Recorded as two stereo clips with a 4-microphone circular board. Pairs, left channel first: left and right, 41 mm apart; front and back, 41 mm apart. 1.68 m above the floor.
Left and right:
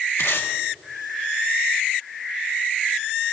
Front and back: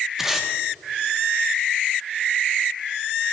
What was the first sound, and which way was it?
Tape being pulled, 100° left.